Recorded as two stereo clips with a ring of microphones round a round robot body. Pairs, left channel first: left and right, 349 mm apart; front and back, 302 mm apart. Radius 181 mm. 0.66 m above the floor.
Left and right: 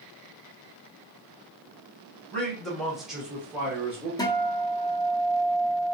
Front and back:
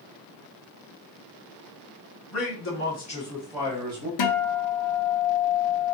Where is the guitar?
10° left, 0.7 m.